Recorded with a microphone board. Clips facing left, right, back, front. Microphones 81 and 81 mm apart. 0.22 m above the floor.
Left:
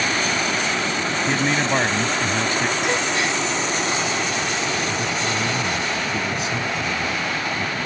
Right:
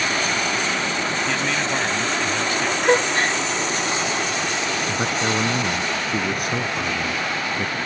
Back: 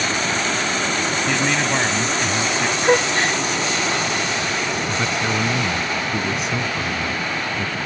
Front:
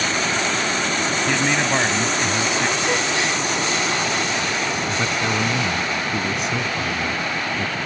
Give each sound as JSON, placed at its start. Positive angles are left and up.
{"t": 1.3, "sound": "a man speaking", "azimuth_deg": 75}
{"t": 2.8, "sound": "a gasp", "azimuth_deg": -135}
{"t": 4.9, "sound": "a man speaking", "azimuth_deg": -90}